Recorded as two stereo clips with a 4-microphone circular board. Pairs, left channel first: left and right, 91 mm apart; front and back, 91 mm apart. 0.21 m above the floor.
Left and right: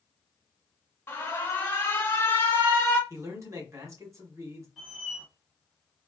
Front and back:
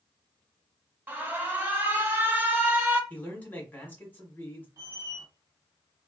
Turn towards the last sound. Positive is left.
turn(degrees=-175)